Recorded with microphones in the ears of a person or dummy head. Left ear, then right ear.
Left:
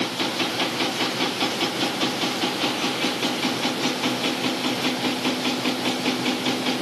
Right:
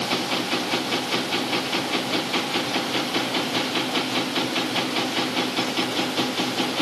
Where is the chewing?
I don't hear chewing.